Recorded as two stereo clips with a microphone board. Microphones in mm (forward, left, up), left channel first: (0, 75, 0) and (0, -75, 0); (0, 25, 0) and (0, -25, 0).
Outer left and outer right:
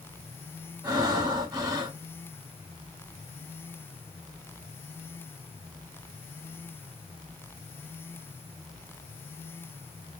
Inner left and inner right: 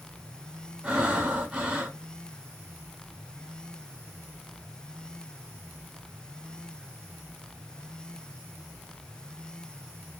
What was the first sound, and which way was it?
Breathing, 25° right (ahead or behind).